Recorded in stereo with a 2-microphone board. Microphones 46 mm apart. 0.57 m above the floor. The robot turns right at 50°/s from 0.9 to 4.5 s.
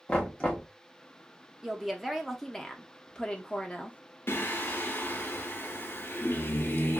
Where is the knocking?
20° left (ahead or behind), 1.1 m.